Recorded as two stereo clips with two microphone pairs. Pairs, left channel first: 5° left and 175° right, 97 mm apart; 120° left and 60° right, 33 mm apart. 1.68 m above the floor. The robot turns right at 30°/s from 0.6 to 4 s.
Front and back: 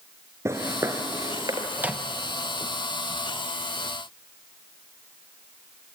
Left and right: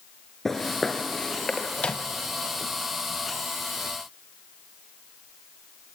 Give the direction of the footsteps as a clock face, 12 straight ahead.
6 o'clock.